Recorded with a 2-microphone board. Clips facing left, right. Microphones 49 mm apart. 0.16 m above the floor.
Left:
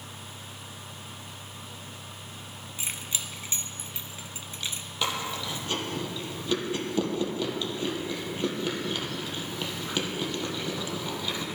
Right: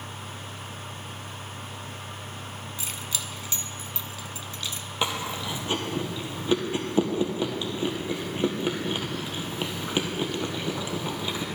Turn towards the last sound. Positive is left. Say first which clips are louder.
# right 1 dB
turn(degrees=-20)  # may be behind; listen again after turning